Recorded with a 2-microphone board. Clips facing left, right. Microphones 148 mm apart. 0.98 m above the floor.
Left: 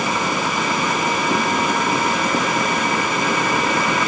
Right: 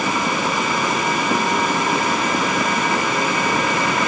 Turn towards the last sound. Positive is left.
No sound to turn to.